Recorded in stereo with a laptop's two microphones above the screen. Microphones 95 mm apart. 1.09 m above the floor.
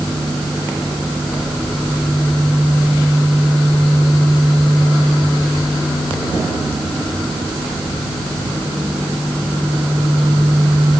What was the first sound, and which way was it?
Only background noise.